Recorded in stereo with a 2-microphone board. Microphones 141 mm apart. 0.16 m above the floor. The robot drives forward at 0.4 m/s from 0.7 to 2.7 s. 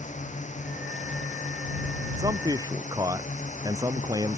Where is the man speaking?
30° right (ahead or behind); by 4.4 s 25° right (ahead or behind).